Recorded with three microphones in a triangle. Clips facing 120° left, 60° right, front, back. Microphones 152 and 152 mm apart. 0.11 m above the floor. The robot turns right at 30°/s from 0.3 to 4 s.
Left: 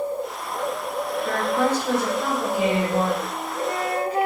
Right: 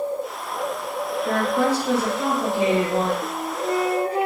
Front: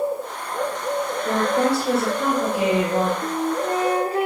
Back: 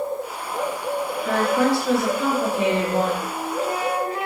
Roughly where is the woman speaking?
Ahead.